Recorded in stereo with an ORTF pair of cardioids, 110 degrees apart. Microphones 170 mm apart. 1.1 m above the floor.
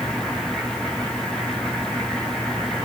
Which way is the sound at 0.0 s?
5° left.